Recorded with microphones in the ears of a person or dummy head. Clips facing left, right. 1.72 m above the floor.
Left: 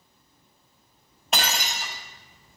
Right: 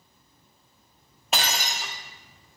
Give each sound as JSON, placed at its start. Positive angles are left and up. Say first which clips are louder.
{"t": 1.3, "sound": "breaking glass", "louder": "left 1 dB", "side_deg": -5, "distance_m": 0.9}